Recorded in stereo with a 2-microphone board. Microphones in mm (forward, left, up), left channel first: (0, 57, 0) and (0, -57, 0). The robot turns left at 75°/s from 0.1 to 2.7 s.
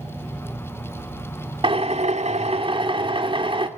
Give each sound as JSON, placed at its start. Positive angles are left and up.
{"t": 1.6, "sound": "a drill", "azimuth_deg": -50, "distance_m": 2.0}